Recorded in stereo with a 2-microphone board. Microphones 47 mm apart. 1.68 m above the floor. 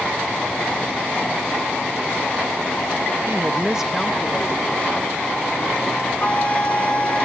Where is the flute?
30° left (ahead or behind), 0.9 m.